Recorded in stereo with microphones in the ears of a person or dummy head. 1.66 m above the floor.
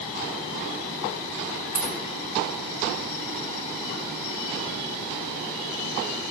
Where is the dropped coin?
40° left (ahead or behind), 1.6 m.